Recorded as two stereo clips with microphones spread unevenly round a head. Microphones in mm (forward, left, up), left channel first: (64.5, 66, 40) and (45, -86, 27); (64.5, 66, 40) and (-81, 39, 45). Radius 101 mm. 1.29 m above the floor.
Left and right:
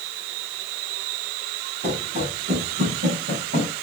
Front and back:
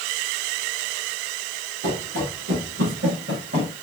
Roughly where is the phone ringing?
No phone ringing in this recording.